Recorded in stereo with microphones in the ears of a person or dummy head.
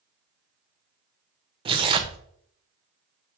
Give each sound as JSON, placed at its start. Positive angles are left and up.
{"t": 1.6, "sound": "tearing paper", "side_deg": -20, "distance_m": 0.6}